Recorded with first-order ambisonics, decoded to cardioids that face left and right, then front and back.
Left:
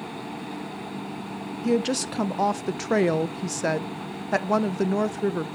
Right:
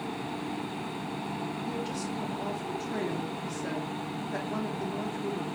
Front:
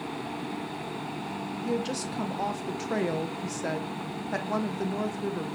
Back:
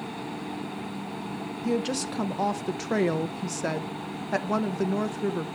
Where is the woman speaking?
105° left, 0.5 m.